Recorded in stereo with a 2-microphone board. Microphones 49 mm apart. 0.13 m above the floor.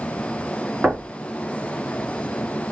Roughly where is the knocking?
Centre.